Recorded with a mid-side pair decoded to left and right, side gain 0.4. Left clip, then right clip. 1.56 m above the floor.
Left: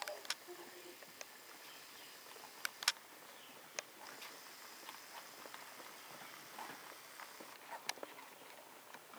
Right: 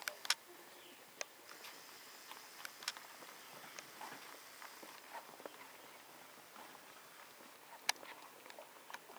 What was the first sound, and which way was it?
Only background noise.